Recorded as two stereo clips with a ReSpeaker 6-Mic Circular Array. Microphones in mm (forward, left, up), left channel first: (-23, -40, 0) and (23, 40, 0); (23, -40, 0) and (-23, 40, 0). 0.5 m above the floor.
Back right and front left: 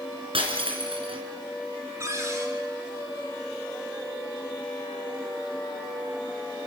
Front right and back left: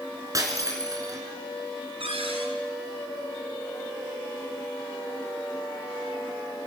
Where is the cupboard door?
115° left, 4 m.